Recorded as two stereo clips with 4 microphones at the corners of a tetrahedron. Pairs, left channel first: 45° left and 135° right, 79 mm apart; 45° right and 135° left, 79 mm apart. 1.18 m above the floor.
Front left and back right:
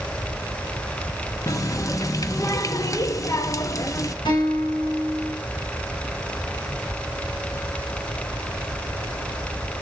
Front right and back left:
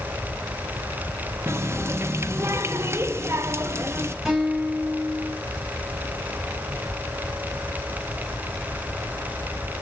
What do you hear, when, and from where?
1.5 s a running tap: 85° left, 0.8 m
4.2 s a guitar: 45° left, 7 m